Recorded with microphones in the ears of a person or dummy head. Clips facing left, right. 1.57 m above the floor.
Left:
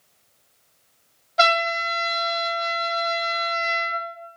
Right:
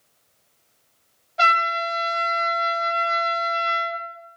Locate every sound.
1.4 s a trumpet: 65° left (ahead or behind), 0.7 m